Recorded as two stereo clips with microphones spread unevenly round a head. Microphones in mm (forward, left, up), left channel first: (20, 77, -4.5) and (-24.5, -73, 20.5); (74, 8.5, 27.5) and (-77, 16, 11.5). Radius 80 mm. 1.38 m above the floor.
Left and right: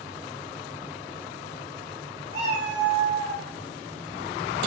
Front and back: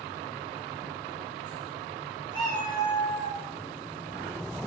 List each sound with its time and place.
2.3 s a cat meowing: 85° right, 1.6 m; by 3.4 s 120° right, 1.3 m